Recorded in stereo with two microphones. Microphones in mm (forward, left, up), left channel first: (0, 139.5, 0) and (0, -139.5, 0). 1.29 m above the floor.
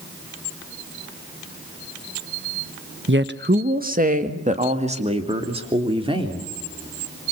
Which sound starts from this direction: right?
A woman speaking, at 3.1 s.